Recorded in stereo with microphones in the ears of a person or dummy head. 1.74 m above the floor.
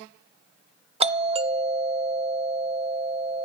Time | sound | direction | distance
1.0 | a doorbell | 25° right (ahead or behind) | 0.6 m